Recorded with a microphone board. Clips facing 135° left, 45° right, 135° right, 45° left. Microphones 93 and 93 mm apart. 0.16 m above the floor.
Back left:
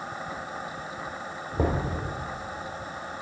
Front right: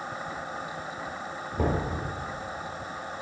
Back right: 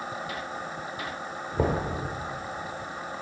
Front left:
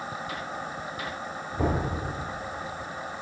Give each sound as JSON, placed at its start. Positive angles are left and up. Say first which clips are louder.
{"t": 1.6, "sound": "knocking", "louder": "back left 1 dB, back right 1 dB", "azimuth_deg": -170, "distance_m": 2.5}